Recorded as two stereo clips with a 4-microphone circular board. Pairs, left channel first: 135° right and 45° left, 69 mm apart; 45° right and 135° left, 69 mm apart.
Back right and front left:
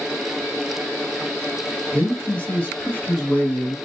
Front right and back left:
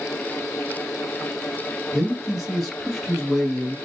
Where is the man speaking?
130° right, 1.1 m.